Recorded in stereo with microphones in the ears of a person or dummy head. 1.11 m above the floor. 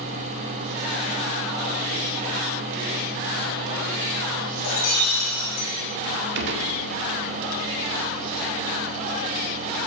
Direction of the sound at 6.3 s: 60° right (ahead or behind).